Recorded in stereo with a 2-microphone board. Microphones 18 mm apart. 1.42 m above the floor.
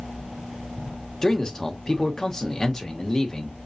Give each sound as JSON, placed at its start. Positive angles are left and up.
{"t": 1.2, "sound": "a man speaking", "side_deg": 35, "distance_m": 1.2}